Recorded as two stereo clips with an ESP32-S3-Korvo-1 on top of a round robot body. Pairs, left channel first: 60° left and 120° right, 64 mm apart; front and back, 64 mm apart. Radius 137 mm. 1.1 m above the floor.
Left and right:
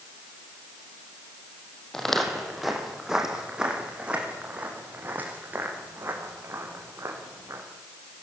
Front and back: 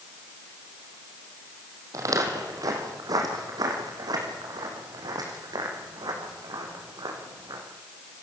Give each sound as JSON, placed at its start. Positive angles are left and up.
{"t": 1.9, "sound": "footsteps", "azimuth_deg": 145, "distance_m": 3.5}